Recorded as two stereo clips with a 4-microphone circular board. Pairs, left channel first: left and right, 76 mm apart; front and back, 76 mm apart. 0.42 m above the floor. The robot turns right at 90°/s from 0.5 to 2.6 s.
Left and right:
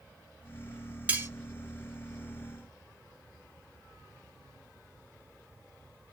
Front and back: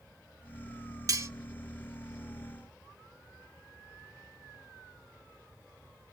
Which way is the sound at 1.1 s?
155° right.